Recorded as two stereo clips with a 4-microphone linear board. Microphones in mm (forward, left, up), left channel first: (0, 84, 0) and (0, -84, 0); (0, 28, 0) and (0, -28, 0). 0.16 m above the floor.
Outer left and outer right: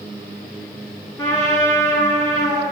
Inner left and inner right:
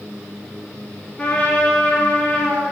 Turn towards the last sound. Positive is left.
turn(degrees=15)  # may be behind; listen again after turning